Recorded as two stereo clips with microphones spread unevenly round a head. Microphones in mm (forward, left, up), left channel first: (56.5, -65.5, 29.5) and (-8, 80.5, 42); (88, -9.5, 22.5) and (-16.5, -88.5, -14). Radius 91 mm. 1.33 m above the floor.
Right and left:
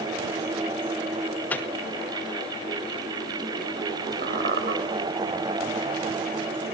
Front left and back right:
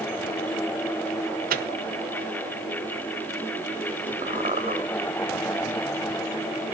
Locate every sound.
1.5 s a microwave: 145° right, 1.1 m
4.2 s a squeak: 150° left, 2 m